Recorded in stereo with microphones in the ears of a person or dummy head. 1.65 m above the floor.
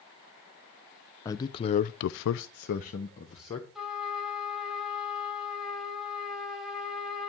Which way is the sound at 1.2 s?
15° left (ahead or behind).